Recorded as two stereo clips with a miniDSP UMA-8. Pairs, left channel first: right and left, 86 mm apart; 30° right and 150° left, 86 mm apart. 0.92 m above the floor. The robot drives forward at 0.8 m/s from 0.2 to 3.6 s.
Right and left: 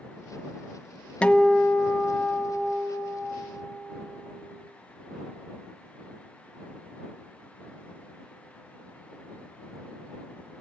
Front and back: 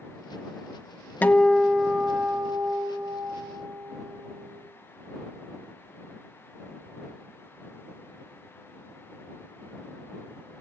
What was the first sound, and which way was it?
A guitar, 40° right.